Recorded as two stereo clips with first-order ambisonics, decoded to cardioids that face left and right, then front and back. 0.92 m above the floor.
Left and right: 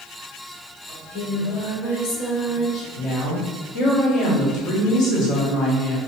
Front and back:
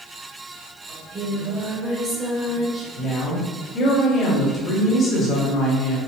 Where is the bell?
I don't hear a bell.